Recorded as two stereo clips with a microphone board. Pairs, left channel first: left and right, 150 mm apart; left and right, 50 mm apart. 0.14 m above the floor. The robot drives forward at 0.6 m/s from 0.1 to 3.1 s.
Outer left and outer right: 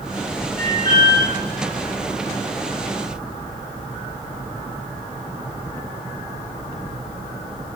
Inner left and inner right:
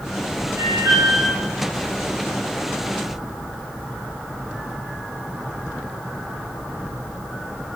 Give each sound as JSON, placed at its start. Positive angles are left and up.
{"t": 0.6, "sound": "an alarm", "side_deg": -70, "distance_m": 7.0}